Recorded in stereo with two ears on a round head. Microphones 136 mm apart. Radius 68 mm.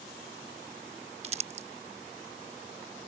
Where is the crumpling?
45° right (ahead or behind).